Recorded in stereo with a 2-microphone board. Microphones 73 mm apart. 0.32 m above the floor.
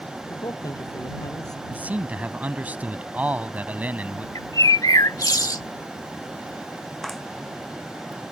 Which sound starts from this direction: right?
A man speaking, at 1.7 s.